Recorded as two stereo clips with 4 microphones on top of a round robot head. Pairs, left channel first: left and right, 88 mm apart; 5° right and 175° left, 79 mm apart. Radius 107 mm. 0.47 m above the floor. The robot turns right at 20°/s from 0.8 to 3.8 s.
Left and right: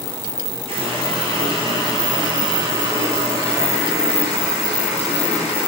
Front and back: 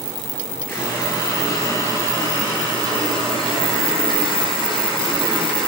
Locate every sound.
0.7 s a running tap: 75° right, 7.5 m; by 5.7 s 15° right, 7.5 m